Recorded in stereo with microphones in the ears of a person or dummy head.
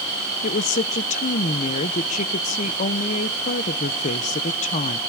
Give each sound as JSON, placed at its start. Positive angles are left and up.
{"t": 0.4, "sound": "a woman speaking", "side_deg": 45, "distance_m": 0.8}